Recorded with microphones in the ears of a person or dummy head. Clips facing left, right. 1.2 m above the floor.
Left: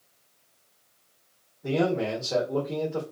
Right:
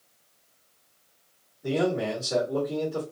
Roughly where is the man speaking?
Centre.